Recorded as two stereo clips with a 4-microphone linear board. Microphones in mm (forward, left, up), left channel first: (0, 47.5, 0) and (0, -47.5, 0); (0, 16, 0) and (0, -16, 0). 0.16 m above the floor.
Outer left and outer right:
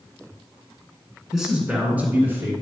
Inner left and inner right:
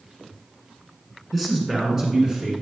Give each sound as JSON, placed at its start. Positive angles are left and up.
{"t": 1.3, "sound": "a man speaking", "side_deg": -5, "distance_m": 2.0}